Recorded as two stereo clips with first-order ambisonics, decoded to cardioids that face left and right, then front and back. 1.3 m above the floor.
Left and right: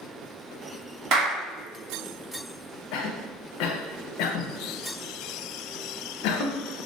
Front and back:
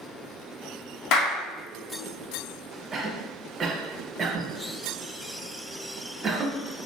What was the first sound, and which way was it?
A clap, 40° right.